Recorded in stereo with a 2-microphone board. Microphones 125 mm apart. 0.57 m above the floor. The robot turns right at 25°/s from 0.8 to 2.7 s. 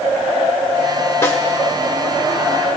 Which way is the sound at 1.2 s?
20° left (ahead or behind).